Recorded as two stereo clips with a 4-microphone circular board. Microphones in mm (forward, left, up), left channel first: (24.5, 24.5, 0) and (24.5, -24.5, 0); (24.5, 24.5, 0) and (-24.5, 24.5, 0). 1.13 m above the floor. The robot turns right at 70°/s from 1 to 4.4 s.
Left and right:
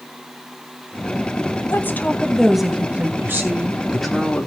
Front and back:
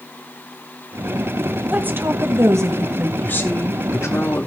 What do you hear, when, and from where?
1.7 s a woman speaking: 125° left, 1.7 m; by 3.1 s 140° right, 1.7 m
3.2 s a woman speaking: 55° right, 3 m; by 4.5 s 25° left, 3 m